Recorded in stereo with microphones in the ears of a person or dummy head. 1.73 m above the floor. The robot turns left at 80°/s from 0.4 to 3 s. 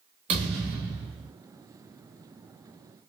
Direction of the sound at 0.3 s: 25° right (ahead or behind).